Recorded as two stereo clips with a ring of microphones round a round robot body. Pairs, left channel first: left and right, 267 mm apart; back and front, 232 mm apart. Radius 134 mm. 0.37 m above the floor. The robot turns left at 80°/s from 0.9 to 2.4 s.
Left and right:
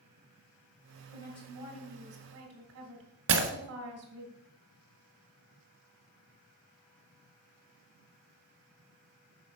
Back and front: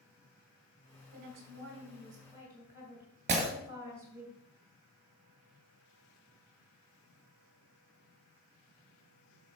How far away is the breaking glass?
About 1.4 m.